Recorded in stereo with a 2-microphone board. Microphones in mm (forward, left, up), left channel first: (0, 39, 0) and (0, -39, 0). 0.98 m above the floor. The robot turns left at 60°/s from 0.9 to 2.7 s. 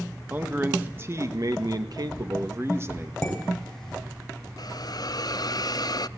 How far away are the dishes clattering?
About 4 m.